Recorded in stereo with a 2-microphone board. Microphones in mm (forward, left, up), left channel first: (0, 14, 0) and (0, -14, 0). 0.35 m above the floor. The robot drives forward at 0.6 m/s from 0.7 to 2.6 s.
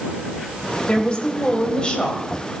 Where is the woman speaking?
40° left (ahead or behind), 1.8 m; by 2.3 s 35° left (ahead or behind), 2 m.